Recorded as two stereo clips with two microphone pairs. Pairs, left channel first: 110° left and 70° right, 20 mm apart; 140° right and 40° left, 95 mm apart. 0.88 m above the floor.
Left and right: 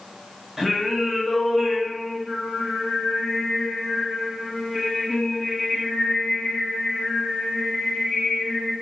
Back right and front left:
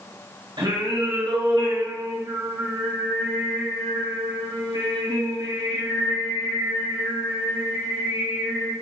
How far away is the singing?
About 1.9 m.